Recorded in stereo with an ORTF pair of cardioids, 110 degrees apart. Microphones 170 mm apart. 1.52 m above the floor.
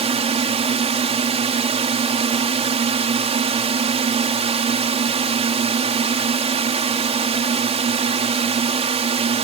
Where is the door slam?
I don't hear a door slam.